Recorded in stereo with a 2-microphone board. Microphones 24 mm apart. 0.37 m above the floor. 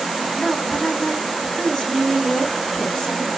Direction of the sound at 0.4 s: 30° left (ahead or behind).